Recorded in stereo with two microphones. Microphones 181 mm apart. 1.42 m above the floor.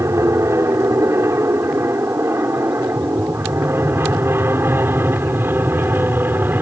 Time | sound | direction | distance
0.0 | an aircraft | 15° right (ahead or behind) | ?